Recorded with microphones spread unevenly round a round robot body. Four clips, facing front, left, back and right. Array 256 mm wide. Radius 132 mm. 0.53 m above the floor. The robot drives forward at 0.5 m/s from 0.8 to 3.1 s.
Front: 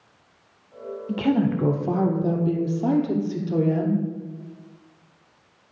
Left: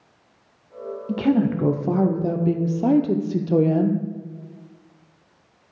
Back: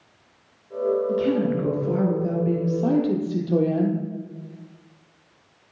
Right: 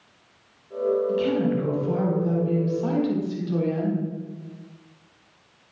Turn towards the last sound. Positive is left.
turn(degrees=90)